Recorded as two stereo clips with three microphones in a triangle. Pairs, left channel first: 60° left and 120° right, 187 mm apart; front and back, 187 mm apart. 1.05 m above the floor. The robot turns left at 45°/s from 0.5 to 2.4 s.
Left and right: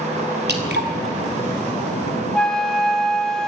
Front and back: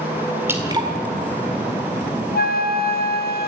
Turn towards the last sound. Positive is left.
turn(degrees=-25)